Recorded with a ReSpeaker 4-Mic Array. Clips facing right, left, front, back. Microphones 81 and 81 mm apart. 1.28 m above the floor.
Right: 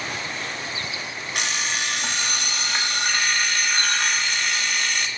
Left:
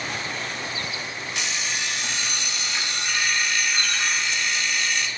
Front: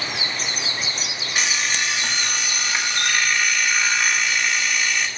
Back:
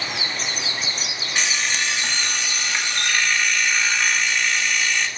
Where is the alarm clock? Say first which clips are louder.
Right 4 dB, even; 85° right, 1.1 m.